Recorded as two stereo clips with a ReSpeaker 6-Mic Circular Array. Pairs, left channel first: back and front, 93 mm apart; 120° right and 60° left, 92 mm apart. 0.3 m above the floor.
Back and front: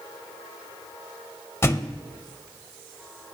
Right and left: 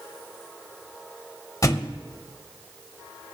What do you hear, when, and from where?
1.6 s a thud: 140° right, 0.6 m